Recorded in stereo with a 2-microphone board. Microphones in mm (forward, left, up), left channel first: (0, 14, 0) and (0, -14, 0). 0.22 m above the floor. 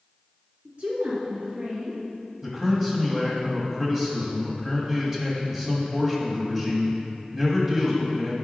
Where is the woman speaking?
50° right (ahead or behind), 2 m; by 2.0 s 70° right (ahead or behind), 3 m.